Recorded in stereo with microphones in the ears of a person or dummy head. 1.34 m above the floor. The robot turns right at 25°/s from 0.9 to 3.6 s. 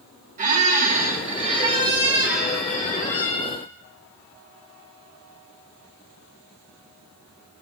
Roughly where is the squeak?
Ahead right.